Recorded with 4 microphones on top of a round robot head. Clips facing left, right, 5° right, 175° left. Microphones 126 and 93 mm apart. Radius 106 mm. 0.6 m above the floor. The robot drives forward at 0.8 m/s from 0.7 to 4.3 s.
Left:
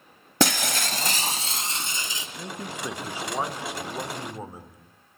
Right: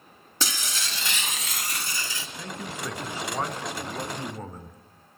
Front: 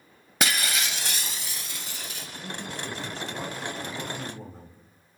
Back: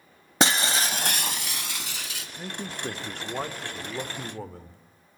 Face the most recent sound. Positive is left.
turn(degrees=170)